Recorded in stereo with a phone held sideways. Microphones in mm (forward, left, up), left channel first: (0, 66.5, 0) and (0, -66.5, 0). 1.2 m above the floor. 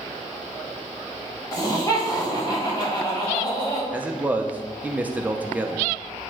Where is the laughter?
30° left (ahead or behind), 3 m.